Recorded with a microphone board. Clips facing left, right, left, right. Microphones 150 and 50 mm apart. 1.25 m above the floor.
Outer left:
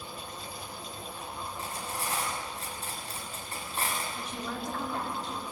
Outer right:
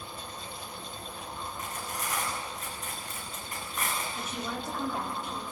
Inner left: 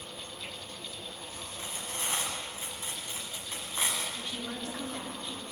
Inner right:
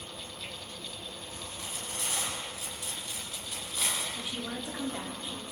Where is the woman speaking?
10° right (ahead or behind), 4 m.